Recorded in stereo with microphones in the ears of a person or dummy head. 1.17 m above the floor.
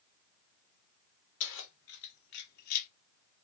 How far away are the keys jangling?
About 1.5 m.